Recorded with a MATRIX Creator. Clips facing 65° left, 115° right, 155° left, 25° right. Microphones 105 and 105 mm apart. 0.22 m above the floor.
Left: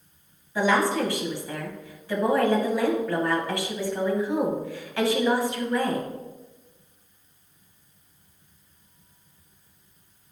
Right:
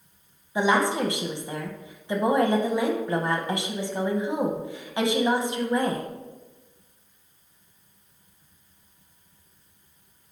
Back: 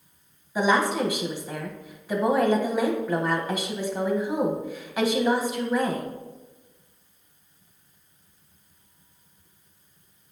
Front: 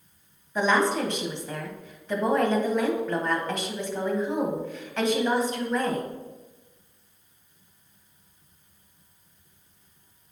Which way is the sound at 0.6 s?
135° right.